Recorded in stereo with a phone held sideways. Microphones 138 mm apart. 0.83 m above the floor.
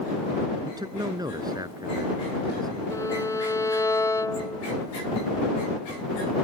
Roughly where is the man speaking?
Right.